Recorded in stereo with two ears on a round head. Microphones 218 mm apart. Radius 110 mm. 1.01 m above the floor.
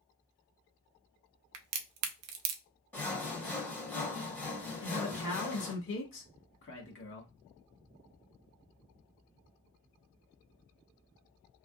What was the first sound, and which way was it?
A crack, 65° right (ahead or behind).